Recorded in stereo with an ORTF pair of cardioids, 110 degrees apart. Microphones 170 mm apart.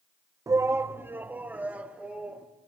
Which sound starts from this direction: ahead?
A shout, at 0.5 s.